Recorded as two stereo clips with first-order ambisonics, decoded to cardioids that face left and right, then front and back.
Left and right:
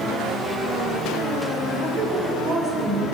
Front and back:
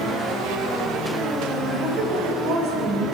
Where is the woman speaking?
150° right, 8 m; by 3.1 s 155° right, 8 m.